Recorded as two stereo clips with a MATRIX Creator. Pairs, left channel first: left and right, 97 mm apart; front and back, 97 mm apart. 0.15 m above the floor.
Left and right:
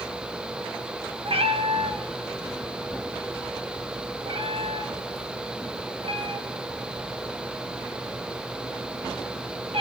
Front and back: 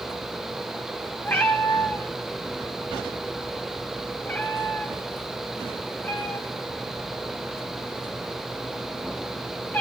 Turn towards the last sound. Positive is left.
turn(degrees=-70)